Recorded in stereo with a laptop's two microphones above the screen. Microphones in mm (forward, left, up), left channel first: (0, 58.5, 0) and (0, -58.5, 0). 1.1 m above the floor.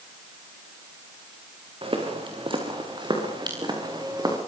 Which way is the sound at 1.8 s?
50° right (ahead or behind).